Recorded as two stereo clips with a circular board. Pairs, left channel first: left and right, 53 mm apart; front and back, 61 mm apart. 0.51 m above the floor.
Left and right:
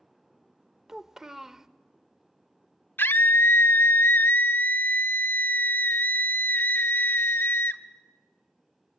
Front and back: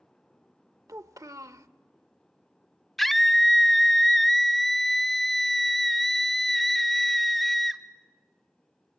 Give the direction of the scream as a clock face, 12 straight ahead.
9 o'clock.